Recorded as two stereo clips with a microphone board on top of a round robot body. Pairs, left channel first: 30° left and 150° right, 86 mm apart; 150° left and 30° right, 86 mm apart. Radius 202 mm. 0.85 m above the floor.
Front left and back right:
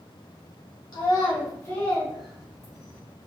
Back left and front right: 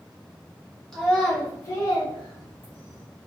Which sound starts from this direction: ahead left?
A child speaking, at 0.9 s.